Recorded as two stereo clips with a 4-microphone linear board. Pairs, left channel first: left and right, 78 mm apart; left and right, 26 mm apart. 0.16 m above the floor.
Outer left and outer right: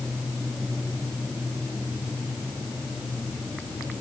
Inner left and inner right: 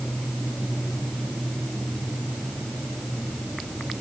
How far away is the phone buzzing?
I don't hear a phone buzzing.